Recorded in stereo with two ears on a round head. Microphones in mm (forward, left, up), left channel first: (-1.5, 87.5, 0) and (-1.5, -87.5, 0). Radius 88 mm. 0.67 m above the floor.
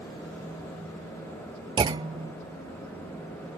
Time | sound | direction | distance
1.8 | a clunk | 25° right (ahead or behind) | ?